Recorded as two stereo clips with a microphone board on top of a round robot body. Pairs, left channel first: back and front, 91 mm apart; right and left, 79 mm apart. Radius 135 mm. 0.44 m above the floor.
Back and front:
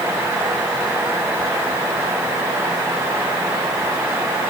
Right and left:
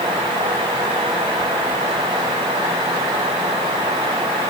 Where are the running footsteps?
No running footsteps in this recording.